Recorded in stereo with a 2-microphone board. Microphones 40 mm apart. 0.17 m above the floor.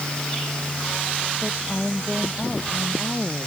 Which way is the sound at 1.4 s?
Centre (ahead or behind).